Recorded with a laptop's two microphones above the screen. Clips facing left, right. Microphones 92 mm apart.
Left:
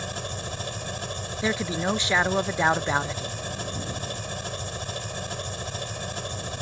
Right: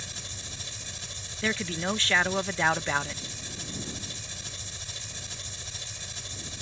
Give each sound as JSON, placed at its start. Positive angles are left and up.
{"t": 0.0, "sound": "an engine running", "side_deg": 60}
{"t": 1.4, "sound": "a man speaking", "side_deg": 15}